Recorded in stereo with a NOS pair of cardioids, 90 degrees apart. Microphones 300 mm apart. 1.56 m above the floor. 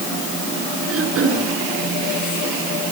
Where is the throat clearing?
50° right, 6.5 m.